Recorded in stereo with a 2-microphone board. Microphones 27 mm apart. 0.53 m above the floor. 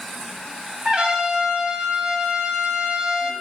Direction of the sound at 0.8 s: 35° right (ahead or behind).